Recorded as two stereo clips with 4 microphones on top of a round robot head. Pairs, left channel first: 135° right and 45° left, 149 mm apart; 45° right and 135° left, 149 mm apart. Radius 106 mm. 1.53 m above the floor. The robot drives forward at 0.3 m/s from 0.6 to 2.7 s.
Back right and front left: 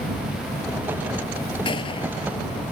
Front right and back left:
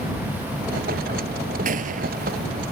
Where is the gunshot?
170° left.